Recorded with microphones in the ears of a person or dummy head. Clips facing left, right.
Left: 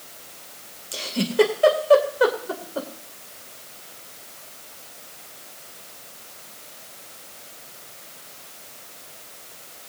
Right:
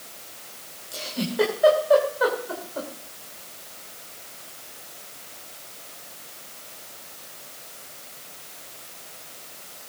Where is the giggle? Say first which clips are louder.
Left 5 dB; 40° left (ahead or behind), 2.5 m.